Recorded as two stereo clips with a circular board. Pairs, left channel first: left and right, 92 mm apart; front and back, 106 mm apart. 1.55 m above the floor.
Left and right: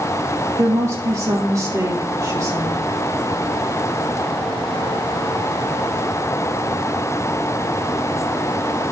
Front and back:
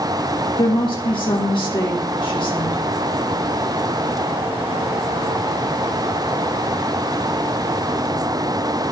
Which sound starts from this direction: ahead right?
A woman speaking, at 0.6 s.